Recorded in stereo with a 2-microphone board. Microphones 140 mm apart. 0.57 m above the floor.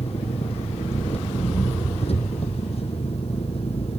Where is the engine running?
45° left (ahead or behind).